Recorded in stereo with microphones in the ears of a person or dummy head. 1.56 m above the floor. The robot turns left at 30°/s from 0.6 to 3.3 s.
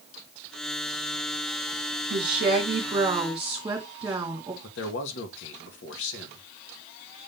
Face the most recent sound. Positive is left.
turn(degrees=75)  # may be behind; listen again after turning